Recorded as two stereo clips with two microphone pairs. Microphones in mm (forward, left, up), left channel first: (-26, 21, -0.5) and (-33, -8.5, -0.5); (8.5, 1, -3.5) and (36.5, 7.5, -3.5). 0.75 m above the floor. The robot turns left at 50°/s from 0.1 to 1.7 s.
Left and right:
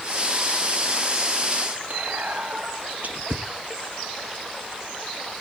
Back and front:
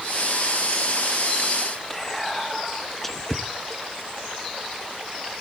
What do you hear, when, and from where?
1.9 s whispering: 85° right, 0.7 m